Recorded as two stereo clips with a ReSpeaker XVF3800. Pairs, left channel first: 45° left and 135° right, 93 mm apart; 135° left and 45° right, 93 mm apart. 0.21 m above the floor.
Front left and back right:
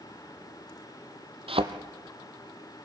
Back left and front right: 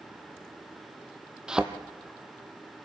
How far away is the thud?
About 1.1 m.